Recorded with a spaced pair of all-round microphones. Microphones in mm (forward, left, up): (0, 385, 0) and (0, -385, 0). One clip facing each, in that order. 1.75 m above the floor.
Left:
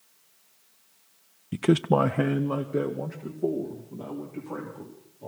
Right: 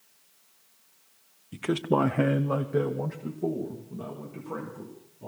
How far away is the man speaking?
About 0.7 m.